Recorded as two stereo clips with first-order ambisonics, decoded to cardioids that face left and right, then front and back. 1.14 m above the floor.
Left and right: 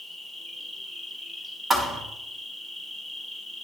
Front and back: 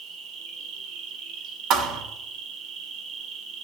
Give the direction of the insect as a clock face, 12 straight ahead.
5 o'clock.